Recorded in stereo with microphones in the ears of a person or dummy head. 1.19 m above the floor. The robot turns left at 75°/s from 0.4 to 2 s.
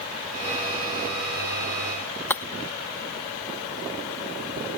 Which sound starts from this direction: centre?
Breaking glass, at 2.3 s.